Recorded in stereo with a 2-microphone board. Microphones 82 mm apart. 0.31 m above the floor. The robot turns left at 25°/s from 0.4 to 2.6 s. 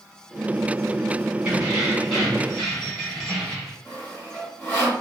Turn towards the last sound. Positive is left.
turn(degrees=20)  # may be behind; listen again after turning